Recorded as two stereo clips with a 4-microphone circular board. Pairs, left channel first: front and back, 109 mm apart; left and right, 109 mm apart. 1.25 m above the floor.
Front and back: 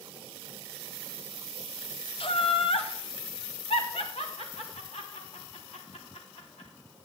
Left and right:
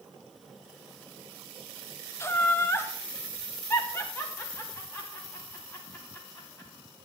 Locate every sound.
2.2 s laughter: 25° left, 0.9 m; by 6.7 s 20° left, 4 m